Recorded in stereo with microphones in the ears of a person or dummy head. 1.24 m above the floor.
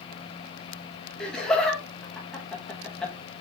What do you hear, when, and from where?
1.2 s laughter: centre (ahead or behind), 1.2 m